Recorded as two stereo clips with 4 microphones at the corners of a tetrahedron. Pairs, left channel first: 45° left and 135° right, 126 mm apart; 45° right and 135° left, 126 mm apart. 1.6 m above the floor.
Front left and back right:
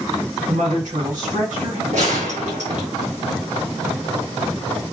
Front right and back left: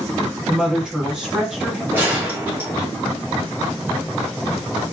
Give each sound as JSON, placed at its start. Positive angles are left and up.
{"t": 0.5, "sound": "a woman speaking", "azimuth_deg": -140, "distance_m": 3.0}
{"t": 1.9, "sound": "a gunshot", "azimuth_deg": -150, "distance_m": 1.7}